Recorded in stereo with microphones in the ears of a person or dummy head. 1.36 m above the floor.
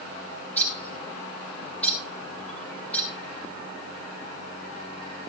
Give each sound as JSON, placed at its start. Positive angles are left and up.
{"t": 0.5, "sound": "a bird", "side_deg": 5, "distance_m": 1.6}